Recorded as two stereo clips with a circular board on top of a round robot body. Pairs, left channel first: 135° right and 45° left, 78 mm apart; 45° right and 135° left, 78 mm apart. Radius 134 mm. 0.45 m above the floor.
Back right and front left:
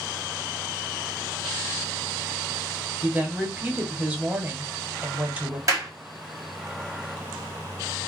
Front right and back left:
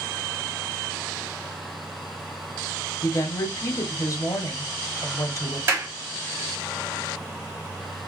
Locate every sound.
3.0 s a woman speaking: 20° right, 1.1 m
5.7 s a clap: 85° left, 1.4 m